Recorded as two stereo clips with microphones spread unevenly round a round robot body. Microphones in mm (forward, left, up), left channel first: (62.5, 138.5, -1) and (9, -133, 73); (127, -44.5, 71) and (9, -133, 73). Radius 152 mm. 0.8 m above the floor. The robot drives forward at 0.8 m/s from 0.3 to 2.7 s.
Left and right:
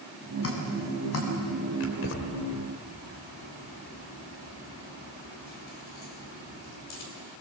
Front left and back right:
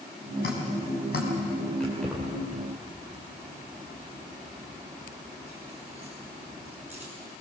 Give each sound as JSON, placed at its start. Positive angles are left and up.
{"t": 0.4, "sound": "dripping", "azimuth_deg": 40, "distance_m": 5.0}
{"t": 1.8, "sound": "keys jangling", "azimuth_deg": 125, "distance_m": 2.5}